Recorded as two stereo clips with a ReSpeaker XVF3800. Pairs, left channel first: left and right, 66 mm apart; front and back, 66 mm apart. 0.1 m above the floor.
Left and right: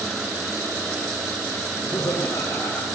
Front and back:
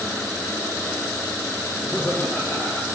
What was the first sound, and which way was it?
Laughter, 75° left.